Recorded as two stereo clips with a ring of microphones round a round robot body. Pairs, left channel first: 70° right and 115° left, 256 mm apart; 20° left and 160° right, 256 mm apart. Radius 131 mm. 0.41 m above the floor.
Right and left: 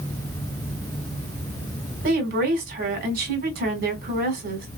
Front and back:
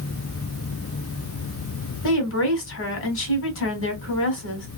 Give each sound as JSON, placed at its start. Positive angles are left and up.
{"t": 2.0, "sound": "a woman speaking", "azimuth_deg": 55, "distance_m": 2.0}